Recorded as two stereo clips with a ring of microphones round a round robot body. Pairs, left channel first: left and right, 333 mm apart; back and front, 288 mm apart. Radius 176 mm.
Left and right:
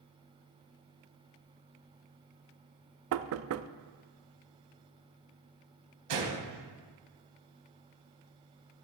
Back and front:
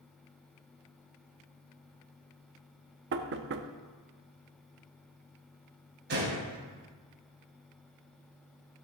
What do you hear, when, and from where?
3.1 s knocking: 50° right, 0.5 m
6.1 s a gunshot: 60° right, 3 m